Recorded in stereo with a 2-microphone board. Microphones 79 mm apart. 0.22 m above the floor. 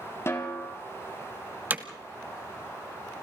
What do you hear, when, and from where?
0.3 s a snare drum: 35° left (ahead or behind), 3 m
1.7 s hammering: 20° right (ahead or behind), 1.3 m